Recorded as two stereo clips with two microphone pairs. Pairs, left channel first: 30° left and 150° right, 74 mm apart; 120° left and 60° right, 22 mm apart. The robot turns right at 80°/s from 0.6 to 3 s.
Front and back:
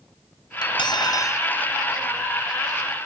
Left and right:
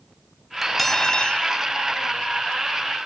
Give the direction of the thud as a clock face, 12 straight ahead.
I don't hear a thud.